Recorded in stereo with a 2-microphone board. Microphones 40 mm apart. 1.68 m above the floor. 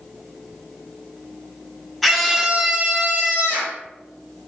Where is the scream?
Centre (ahead or behind), 0.7 m; by 3.8 s 60° right (ahead or behind), 0.7 m.